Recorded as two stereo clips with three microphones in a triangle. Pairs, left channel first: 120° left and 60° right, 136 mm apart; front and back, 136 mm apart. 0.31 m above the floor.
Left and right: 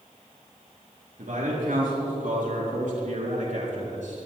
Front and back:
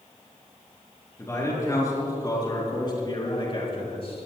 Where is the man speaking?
65° right, 5 m; by 4.3 s 40° right, 4 m.